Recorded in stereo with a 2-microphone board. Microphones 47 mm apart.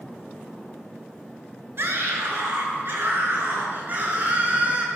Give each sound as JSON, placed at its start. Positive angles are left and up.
{"t": 1.8, "sound": "a scream", "side_deg": -55, "distance_m": 4.5}